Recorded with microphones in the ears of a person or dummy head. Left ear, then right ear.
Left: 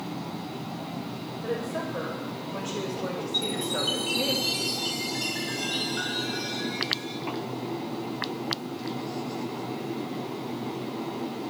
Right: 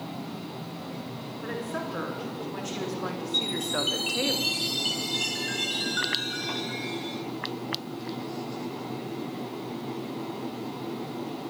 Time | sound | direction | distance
1.4 | a woman speaking | 50° right (ahead or behind) | 4.5 m
3.3 | a chime | 40° right (ahead or behind) | 3.5 m